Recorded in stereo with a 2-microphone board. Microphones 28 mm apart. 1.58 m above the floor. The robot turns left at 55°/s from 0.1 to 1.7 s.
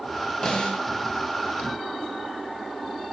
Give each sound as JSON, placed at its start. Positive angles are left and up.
{"t": 0.4, "sound": "a snare drum", "side_deg": 30, "distance_m": 1.0}